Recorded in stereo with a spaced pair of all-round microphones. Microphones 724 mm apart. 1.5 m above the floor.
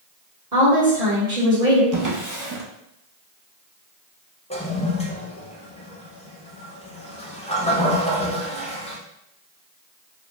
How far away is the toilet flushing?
About 0.8 m.